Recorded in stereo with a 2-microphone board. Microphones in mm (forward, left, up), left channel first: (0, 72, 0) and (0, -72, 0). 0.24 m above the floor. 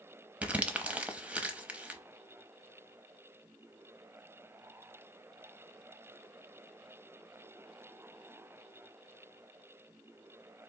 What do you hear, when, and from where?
0.4 s crumpling: 10° right (ahead or behind), 0.7 m